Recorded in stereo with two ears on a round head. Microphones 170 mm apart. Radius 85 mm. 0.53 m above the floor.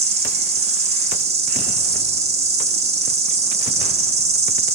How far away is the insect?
About 0.8 m.